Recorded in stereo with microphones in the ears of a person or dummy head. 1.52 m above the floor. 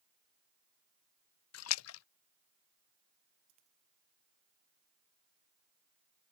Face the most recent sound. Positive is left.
turn(degrees=-35)  # may be behind; listen again after turning